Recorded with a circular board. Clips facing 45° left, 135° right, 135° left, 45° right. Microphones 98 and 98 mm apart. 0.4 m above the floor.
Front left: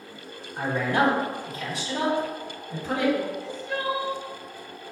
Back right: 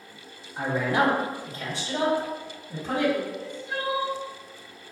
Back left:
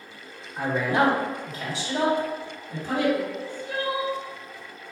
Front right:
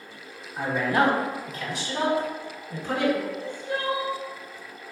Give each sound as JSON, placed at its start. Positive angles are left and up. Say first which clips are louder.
{"t": 0.6, "sound": "a man speaking", "louder": "even, even", "azimuth_deg": -175, "distance_m": 1.6}
{"t": 3.3, "sound": "crying", "louder": "front left 2 dB, front right 2 dB", "azimuth_deg": 160, "distance_m": 1.5}